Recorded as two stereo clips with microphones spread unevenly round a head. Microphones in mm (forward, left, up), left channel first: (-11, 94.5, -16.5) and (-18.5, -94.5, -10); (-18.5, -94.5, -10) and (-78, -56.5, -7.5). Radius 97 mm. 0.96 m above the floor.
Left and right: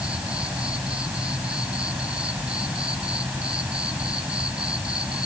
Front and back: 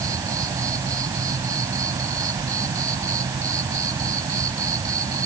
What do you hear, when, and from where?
0.0 s an insect: 175° right